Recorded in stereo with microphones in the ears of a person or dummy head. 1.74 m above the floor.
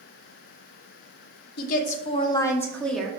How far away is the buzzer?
No buzzer in this recording.